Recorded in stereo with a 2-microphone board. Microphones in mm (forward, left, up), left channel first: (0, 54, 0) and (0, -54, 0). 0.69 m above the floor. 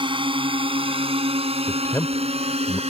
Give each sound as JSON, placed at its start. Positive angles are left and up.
{"t": 0.0, "sound": "a drone", "side_deg": -50}
{"t": 1.7, "sound": "a man speaking", "side_deg": 25}